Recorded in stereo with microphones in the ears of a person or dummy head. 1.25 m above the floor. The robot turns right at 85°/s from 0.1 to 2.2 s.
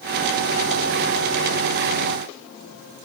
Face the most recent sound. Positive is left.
No sound to turn to.